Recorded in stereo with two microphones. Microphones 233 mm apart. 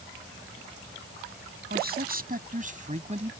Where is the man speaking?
45° right (ahead or behind); by 3.3 s 25° right (ahead or behind).